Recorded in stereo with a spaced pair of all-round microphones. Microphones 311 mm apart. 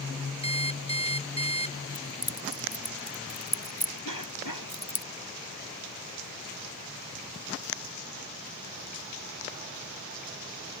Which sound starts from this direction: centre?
An alarm clock, at 0.4 s.